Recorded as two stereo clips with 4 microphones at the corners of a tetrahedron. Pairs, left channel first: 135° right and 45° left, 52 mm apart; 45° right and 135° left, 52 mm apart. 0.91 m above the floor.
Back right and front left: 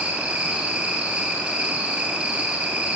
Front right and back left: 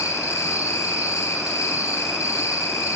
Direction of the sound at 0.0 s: 25° right.